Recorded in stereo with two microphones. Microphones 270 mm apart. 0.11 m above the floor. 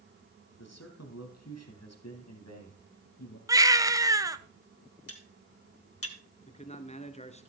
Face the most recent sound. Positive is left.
turn(degrees=25)  # may be behind; listen again after turning